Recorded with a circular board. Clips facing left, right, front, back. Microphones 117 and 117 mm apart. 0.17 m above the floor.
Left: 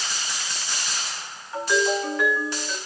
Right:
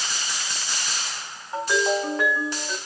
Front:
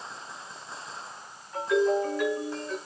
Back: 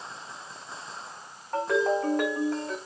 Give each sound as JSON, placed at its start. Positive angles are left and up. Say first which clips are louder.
{"t": 1.5, "sound": "a ringtone", "louder": "even, front 1 dB", "azimuth_deg": -150, "distance_m": 5.0}